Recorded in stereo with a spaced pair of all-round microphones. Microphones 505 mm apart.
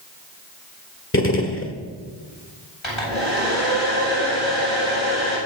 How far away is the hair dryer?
About 9 m.